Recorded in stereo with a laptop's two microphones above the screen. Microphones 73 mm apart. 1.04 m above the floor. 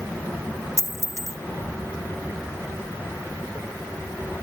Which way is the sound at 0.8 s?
40° right (ahead or behind).